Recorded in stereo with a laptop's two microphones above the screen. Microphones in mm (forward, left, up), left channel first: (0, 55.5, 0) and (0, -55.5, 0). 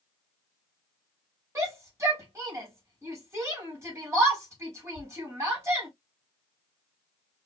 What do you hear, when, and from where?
1.6 s a shout: 30° right (ahead or behind), 3.5 m